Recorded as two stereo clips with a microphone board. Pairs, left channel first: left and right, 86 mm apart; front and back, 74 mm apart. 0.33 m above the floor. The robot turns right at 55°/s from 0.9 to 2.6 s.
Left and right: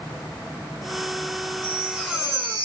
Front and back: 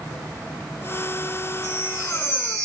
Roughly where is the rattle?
I don't hear a rattle.